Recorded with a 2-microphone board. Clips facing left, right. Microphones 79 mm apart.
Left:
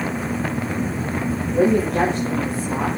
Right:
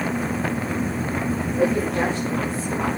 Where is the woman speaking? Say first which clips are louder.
Left 5 dB; 80° left, 8 m.